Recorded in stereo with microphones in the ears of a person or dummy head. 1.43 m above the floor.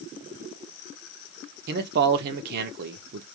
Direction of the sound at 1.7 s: 55° right (ahead or behind).